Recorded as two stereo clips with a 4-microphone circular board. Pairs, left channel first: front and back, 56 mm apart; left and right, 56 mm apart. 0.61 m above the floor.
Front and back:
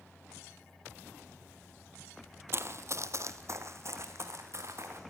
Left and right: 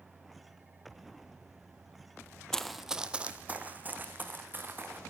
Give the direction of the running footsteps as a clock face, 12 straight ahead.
7 o'clock.